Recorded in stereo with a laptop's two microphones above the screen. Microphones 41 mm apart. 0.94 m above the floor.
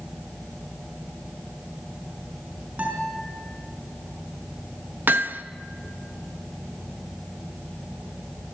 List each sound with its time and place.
2.8 s a guitar: 40° right (ahead or behind), 5 m
5.1 s hammering: 55° right (ahead or behind), 0.9 m